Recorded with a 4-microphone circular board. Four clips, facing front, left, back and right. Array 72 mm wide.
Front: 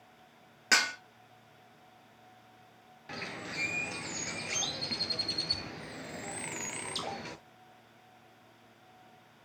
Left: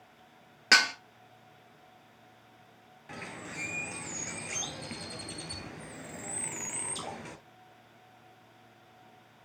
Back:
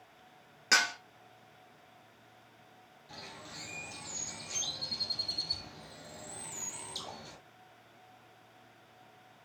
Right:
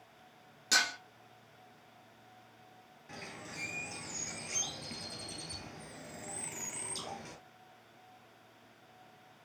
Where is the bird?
20° left, 0.9 m.